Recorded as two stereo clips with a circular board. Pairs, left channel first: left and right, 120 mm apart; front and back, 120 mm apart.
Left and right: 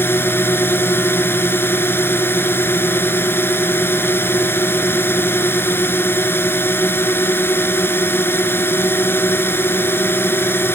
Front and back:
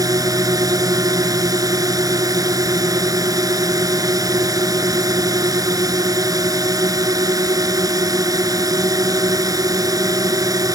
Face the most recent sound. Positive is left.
turn(degrees=150)